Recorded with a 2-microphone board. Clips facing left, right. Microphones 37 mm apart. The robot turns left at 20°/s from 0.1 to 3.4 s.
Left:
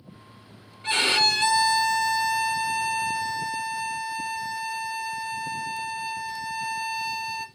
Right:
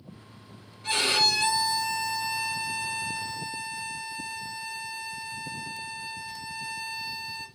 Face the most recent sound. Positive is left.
turn(degrees=90)